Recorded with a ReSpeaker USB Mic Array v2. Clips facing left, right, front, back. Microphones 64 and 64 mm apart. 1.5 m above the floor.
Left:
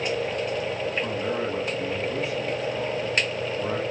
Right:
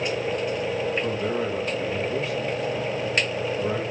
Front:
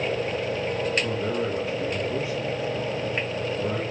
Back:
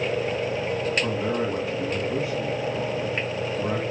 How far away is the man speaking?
About 2.5 m.